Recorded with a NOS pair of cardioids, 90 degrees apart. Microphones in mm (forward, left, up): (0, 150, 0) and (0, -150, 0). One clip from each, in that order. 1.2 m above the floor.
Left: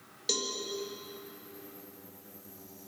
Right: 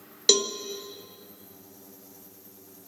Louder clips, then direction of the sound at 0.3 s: Right 10 dB; 65° right.